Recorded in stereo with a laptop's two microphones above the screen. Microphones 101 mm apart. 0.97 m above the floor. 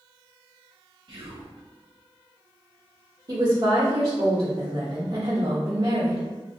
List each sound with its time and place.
1.1 s whispering: 50° right (ahead or behind), 0.6 m
3.3 s a woman speaking: 50° right (ahead or behind), 1.2 m